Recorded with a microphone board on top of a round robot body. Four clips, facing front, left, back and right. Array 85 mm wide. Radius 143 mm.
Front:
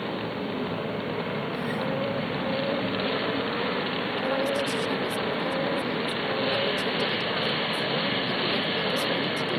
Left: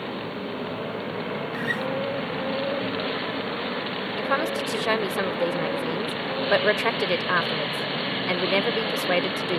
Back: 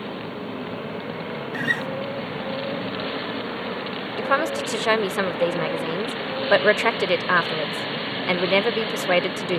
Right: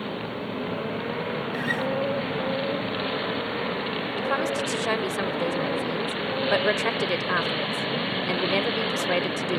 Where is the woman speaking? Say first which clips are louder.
Left 1 dB, back 5 dB; 170° left.